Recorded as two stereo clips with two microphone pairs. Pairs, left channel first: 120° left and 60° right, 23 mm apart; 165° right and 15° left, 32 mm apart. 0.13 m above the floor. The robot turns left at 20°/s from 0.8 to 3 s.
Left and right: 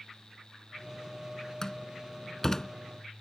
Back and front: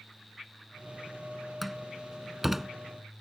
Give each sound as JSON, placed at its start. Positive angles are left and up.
{"t": 1.6, "sound": "a door slam", "azimuth_deg": 110}